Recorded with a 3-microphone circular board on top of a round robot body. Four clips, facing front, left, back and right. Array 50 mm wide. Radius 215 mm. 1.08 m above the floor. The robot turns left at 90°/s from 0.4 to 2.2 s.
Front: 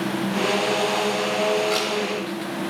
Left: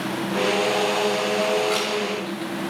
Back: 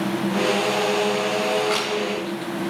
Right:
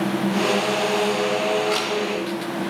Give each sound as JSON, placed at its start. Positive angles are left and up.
{"t": 1.7, "sound": "a camera shutter", "azimuth_deg": 160, "distance_m": 0.9}